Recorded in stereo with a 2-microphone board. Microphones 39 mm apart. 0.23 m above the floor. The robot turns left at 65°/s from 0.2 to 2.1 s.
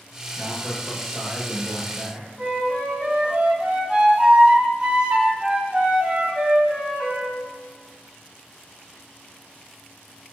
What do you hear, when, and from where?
0.4 s a man speaking: 20° right (ahead or behind), 1.2 m; by 2.3 s 25° left (ahead or behind), 1.2 m
2.4 s a flute: 25° right (ahead or behind), 1.1 m